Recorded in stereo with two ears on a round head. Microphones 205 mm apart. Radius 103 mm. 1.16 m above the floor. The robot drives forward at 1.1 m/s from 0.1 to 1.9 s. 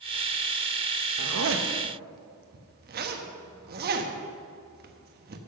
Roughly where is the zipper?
Right.